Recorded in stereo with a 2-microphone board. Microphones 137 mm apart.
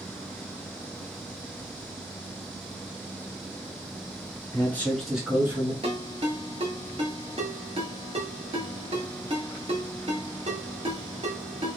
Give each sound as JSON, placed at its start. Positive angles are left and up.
{"t": 4.5, "sound": "a man speaking", "side_deg": 20, "distance_m": 1.2}
{"t": 5.8, "sound": "a ringtone", "side_deg": -45, "distance_m": 1.0}